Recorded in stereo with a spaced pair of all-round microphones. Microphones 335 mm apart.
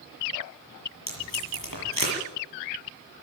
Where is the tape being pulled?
75° left (ahead or behind), 8 m.